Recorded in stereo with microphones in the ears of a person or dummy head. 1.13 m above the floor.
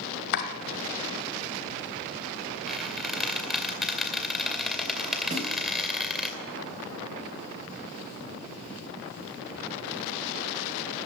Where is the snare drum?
35° right (ahead or behind), 4 m.